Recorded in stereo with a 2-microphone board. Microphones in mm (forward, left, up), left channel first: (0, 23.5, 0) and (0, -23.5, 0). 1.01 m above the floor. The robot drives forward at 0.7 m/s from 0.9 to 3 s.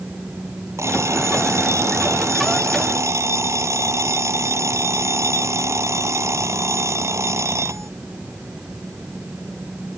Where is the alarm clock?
70° right (ahead or behind); by 7.9 s 80° right.